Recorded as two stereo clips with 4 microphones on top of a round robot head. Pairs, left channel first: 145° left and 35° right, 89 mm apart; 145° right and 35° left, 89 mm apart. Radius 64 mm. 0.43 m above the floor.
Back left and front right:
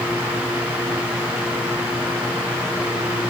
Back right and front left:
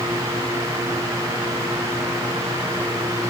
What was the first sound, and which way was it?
Only background noise.